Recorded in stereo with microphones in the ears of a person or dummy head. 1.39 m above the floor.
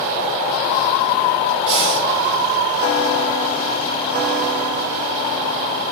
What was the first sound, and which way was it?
Breathing, 35° right (ahead or behind).